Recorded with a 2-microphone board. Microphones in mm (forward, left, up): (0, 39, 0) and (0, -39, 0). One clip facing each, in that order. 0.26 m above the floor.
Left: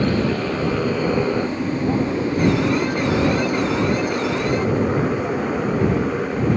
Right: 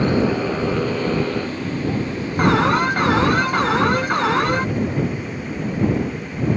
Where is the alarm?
60° right (ahead or behind).